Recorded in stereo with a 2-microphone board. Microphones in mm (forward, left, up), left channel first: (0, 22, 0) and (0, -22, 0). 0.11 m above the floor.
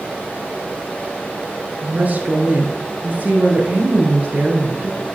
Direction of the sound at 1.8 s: 40° right (ahead or behind).